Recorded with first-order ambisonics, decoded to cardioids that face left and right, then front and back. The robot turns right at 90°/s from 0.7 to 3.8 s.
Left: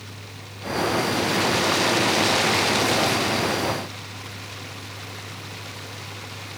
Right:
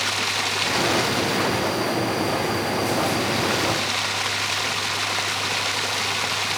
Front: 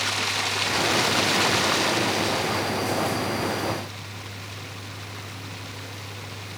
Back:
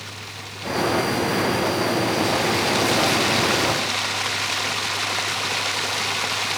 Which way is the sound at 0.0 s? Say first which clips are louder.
Right 18 dB, front 10 dB; 55° right.